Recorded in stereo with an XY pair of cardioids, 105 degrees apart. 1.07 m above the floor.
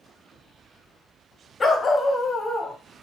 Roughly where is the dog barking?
Ahead left.